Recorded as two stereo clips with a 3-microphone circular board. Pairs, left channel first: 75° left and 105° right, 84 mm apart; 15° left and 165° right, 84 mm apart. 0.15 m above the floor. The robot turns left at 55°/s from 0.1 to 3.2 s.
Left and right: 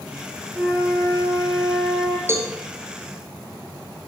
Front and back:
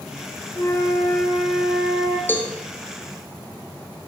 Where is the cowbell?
50° right, 1.6 m; by 2.5 s 65° right, 1.6 m.